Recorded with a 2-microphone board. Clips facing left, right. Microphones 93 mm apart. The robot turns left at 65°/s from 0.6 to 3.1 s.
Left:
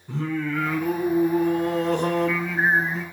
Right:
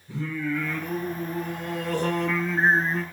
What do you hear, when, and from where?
0.1 s singing: 110° left, 5.5 m; by 3.0 s 50° right, 5.5 m